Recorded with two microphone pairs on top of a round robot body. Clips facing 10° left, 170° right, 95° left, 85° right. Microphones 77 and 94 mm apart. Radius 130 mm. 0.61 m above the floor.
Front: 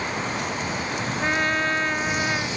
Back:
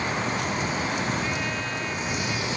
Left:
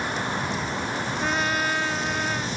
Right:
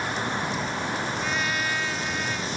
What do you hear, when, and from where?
1.2 s a trumpet: 45° left